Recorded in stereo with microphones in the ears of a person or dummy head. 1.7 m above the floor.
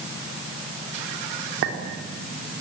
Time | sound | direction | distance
1.6 | a clink | 70° right (ahead or behind) | 4 m